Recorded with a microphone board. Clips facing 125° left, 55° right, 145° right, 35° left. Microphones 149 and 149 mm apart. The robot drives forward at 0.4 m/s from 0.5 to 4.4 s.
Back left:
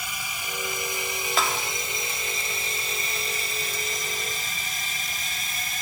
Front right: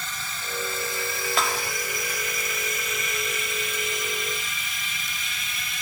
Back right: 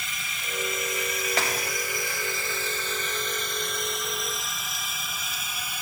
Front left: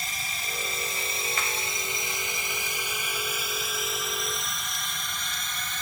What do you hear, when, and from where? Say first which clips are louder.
0.0 s a drone: even, front left 1 dB; 55° left; by 5.8 s 140° left
1.4 s a clap: even, back right 5 dB; 145° right; by 1.7 s 150° right